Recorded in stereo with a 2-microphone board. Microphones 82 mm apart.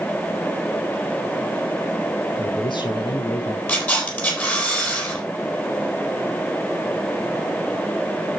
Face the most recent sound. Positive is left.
turn(degrees=20)  # may be behind; listen again after turning